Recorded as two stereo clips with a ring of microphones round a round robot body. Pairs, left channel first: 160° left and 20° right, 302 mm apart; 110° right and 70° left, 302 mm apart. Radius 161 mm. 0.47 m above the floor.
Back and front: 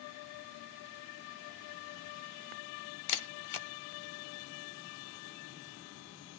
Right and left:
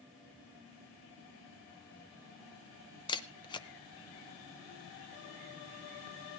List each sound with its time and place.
3.1 s a camera shutter: 170° left, 0.7 m